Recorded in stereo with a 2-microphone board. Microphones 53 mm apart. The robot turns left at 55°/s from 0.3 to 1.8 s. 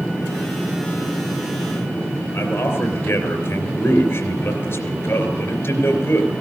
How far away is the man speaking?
About 3 m.